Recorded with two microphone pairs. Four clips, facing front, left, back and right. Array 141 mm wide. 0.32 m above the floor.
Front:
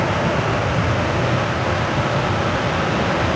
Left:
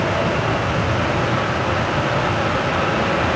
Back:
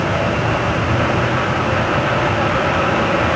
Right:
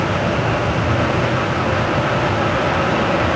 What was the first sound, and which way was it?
Only background noise.